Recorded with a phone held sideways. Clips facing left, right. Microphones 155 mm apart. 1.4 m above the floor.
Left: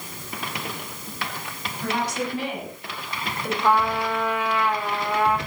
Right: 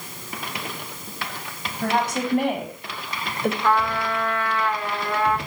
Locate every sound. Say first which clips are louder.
1.8 s a woman speaking: right 3 dB; 55° right (ahead or behind), 8 m
3.6 s a trumpet: left 3 dB; 15° left (ahead or behind), 4 m